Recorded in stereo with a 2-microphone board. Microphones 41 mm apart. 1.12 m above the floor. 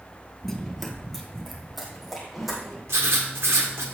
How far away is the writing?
About 1.6 m.